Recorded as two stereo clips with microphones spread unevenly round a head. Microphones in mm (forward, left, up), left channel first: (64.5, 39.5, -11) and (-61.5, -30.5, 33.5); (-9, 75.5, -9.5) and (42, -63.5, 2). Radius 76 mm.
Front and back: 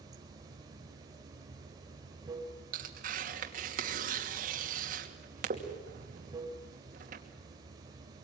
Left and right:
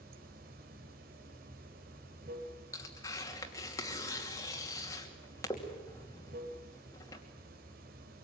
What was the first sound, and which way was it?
Running water, 95° right.